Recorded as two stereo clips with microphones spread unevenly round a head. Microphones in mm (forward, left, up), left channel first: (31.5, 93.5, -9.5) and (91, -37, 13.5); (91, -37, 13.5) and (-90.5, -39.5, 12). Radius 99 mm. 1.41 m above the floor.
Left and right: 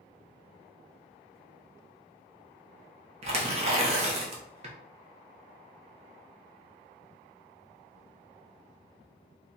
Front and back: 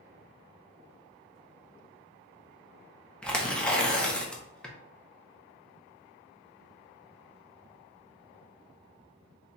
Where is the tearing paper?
85° right, 0.7 m.